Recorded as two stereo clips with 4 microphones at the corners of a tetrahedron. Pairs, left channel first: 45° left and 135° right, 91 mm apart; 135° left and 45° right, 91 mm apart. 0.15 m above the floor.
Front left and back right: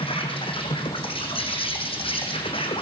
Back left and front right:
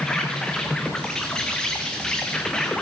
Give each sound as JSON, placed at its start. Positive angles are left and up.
{"t": 0.0, "sound": "an insect", "azimuth_deg": 50, "distance_m": 3.5}